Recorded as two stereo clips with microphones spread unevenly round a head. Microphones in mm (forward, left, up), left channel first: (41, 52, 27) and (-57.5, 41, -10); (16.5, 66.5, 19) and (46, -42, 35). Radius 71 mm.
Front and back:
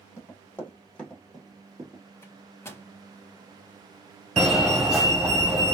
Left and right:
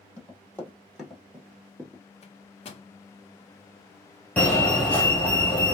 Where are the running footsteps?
30° left, 1.9 m; by 2.0 s 105° right, 1.3 m.